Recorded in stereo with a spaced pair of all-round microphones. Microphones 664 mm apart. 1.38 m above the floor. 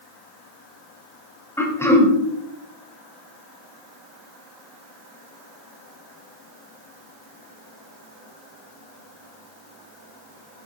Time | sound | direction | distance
1.6 | throat clearing | 5° left (ahead or behind) | 1.6 m